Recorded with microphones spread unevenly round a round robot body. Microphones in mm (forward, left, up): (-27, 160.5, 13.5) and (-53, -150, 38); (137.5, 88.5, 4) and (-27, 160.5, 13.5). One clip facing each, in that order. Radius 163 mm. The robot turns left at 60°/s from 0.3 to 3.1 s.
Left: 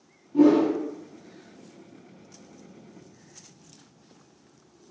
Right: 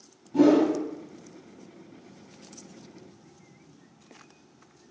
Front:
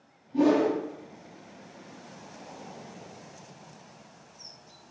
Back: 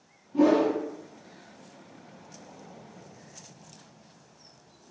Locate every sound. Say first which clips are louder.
0.3 s a whoosh: left 1 dB, back 1 dB; 85° right, 0.7 m; by 0.8 s 110° right, 0.7 m